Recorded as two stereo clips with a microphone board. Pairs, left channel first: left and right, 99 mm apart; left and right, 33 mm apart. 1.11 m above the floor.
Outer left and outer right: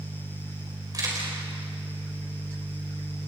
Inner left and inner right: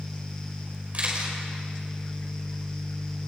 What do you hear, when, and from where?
0.9 s a camera shutter: 40° right (ahead or behind), 5 m